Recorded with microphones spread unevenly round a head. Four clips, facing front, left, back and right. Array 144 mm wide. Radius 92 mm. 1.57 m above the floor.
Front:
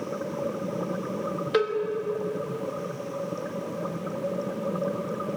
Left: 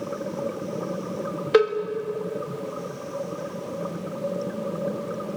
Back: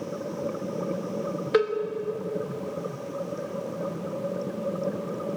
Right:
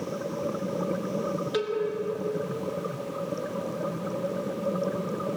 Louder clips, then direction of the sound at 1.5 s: Left 13 dB, back 2 dB; 95° left.